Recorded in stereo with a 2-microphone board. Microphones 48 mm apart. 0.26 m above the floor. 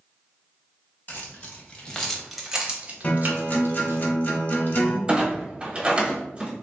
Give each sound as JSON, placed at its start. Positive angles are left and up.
{"t": 1.1, "sound": "keys jangling", "side_deg": 40, "distance_m": 1.1}
{"t": 3.0, "sound": "a guitar", "side_deg": 35, "distance_m": 0.7}
{"t": 5.1, "sound": "a clunk", "side_deg": -25, "distance_m": 0.8}